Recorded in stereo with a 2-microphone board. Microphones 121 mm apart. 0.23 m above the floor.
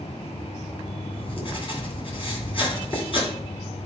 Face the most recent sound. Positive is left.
turn(degrees=50)  # may be behind; listen again after turning